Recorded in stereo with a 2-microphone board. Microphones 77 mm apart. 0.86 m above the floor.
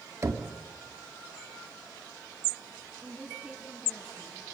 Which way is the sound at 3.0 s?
15° right (ahead or behind).